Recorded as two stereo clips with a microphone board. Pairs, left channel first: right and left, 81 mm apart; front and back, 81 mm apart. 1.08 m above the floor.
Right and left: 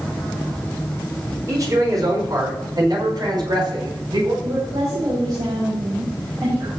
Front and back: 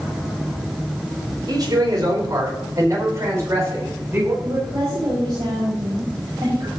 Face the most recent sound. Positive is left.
turn(degrees=135)